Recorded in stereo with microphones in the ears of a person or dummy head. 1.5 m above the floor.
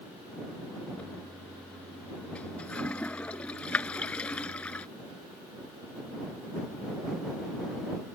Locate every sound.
1.0 s a toilet flushing: 5° left (ahead or behind)